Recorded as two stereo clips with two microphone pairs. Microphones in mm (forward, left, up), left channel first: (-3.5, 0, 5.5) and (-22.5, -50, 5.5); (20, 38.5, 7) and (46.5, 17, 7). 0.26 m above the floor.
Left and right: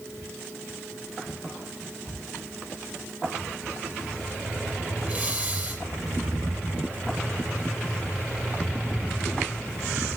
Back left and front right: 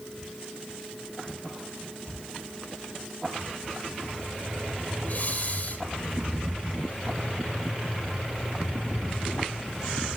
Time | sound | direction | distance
5.0 | breathing | 175° right | 5 m